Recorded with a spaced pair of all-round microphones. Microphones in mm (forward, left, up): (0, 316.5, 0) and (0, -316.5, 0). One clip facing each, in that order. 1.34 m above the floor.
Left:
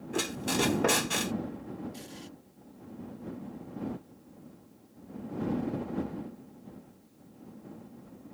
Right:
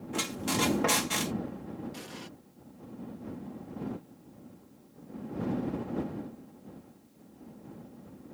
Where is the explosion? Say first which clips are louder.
Right 1 dB; 80° right.